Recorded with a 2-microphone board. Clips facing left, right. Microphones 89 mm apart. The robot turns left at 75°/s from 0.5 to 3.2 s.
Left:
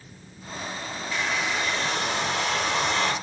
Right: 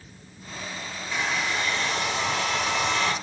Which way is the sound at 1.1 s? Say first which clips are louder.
Even; 165° right.